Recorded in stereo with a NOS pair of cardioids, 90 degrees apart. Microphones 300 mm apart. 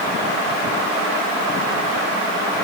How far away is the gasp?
I don't hear a gasp.